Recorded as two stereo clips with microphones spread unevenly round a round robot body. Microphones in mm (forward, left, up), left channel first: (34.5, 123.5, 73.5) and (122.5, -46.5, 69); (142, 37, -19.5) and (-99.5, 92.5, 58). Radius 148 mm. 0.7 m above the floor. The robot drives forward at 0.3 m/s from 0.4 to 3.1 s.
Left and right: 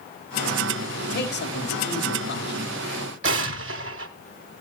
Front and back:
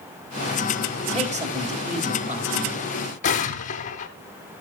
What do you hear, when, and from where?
1.1 s a man speaking: 100° left, 4 m; by 2.7 s 105° left, 4.5 m
3.2 s an explosion: 85° right, 1.0 m